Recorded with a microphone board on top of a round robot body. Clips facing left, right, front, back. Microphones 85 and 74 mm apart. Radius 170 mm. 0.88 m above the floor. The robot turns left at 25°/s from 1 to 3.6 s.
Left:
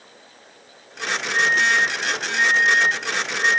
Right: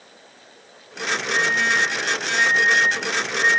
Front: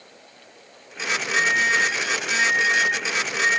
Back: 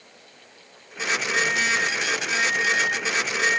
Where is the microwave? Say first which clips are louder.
Left 2 dB, front 4 dB; 165° right, 0.8 m; by 3.6 s 135° left, 0.8 m.